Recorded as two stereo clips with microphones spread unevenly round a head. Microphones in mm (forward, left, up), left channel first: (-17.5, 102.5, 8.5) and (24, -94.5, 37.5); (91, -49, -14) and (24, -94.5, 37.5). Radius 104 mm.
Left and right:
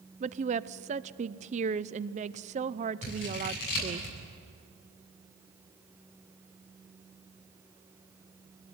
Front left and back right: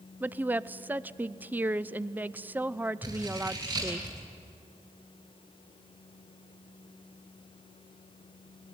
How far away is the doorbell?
No doorbell in this recording.